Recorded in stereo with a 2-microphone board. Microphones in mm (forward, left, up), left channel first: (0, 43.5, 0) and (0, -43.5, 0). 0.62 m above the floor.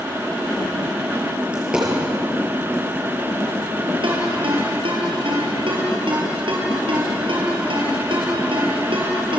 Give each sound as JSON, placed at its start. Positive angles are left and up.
{"t": 1.5, "sound": "a dropped coin", "side_deg": -10, "distance_m": 6.0}
{"t": 4.0, "sound": "a ringtone", "side_deg": -85, "distance_m": 6.5}